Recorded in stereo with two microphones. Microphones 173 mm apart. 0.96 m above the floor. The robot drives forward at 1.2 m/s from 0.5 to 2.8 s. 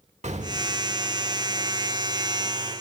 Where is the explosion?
45° right (ahead or behind), 2 m; by 0.9 s 35° right (ahead or behind), 2.5 m.